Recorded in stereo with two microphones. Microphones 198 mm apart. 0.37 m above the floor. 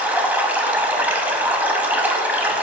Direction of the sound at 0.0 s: 10° right (ahead or behind).